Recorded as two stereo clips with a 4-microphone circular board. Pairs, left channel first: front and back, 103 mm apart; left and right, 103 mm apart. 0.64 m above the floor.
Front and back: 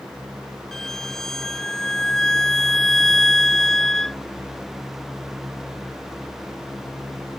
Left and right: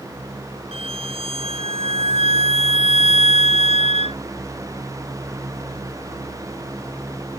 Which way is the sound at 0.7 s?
85° right.